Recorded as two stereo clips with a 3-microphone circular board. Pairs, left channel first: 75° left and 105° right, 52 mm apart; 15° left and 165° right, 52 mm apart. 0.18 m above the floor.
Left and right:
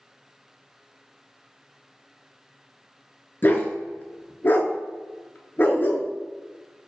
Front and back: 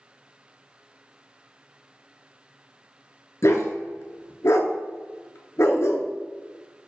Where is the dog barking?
25° left, 0.5 m.